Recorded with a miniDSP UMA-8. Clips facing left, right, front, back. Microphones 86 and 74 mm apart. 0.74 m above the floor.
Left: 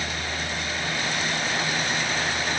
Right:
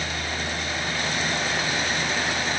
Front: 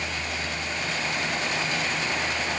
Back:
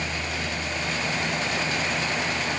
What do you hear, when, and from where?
Only background noise.